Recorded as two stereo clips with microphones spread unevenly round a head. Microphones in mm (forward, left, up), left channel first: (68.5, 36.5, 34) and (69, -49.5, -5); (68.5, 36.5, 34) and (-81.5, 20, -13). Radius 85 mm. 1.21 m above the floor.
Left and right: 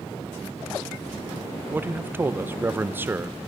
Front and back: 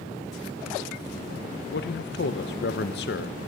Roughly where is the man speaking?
Ahead.